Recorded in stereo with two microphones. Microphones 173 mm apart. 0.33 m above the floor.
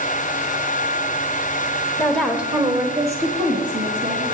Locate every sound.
2.0 s a woman speaking: 15° left (ahead or behind), 1.1 m; by 4.2 s 60° right (ahead or behind), 2 m